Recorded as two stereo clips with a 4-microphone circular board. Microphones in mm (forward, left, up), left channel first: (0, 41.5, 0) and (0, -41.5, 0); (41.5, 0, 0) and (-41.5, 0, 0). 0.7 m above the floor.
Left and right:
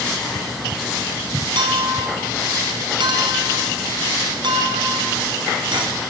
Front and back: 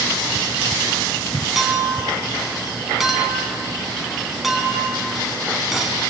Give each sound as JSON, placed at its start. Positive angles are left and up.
{"t": 1.6, "sound": "a clink", "azimuth_deg": -95, "distance_m": 3.5}